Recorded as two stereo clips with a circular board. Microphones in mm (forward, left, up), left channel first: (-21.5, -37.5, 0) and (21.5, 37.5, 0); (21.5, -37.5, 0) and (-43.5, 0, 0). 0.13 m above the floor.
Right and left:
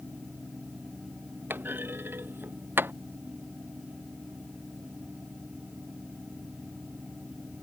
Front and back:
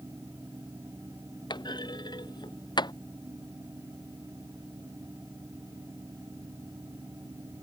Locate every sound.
1.5 s a clunk: 10° right